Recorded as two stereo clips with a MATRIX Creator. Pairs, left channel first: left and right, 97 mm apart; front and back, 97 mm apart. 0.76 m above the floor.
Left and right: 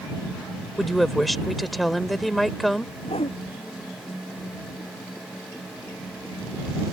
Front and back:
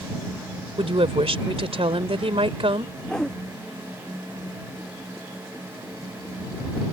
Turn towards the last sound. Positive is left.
turn(degrees=80)